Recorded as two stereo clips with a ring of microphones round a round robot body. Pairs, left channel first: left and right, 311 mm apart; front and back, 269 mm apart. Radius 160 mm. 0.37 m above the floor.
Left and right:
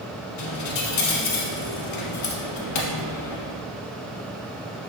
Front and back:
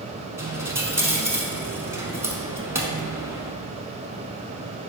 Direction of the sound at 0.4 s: 100° left.